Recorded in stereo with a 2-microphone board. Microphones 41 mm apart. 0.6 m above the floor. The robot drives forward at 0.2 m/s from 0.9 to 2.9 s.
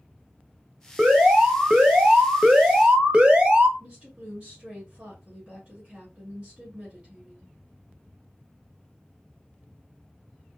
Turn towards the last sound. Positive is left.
turn(degrees=-25)  # may be behind; listen again after turning